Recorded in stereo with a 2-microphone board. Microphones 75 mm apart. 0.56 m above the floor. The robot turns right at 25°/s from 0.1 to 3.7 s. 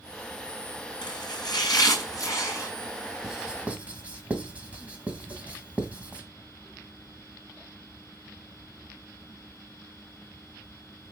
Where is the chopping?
100° left, 4.5 m; by 2.7 s 145° left, 4.5 m.